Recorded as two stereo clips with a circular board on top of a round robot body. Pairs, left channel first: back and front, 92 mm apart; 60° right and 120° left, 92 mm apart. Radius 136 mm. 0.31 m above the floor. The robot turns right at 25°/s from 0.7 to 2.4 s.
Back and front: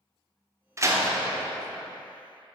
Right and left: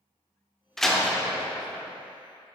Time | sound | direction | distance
0.8 | a door slam | 25° left | 1.1 m